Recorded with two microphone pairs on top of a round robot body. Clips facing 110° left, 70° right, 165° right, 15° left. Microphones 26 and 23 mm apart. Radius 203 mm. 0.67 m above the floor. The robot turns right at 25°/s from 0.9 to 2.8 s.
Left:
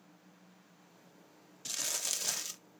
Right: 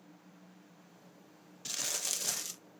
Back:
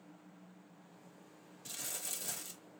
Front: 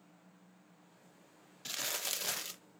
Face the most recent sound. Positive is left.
turn(degrees=25)